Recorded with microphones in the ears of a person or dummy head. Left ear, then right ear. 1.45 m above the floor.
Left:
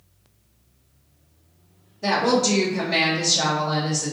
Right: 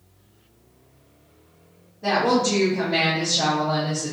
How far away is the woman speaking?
About 0.7 m.